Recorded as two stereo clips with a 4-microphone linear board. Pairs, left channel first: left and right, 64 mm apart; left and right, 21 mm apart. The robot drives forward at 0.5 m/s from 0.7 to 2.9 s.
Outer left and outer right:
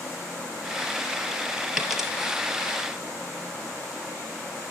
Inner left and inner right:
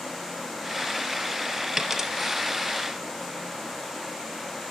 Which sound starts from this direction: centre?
A dropped coin, at 1.8 s.